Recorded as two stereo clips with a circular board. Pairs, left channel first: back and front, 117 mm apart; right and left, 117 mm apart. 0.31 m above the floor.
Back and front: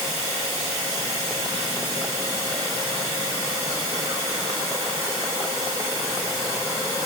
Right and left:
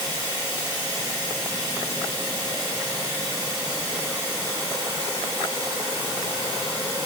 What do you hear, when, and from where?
0.0 s running water: 135° left, 1.5 m